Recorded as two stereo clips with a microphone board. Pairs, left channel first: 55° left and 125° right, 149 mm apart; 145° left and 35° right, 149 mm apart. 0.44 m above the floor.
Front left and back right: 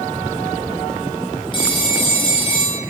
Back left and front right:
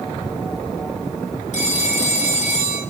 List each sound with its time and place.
1.5 s a phone ringing: 110° left, 3 m